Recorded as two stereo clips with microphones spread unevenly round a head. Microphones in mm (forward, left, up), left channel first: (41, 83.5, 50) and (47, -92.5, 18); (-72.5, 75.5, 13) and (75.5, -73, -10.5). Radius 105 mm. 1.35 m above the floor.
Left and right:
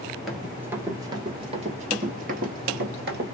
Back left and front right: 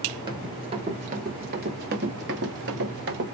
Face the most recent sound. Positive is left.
turn(degrees=-65)